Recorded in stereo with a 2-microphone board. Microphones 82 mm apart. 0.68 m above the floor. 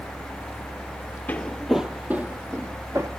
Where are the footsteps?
20° left (ahead or behind), 0.9 m; by 3.1 s 30° right (ahead or behind), 2.0 m.